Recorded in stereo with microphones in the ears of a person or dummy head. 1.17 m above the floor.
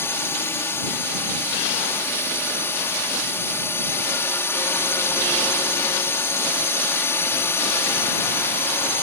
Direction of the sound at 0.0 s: 10° left (ahead or behind).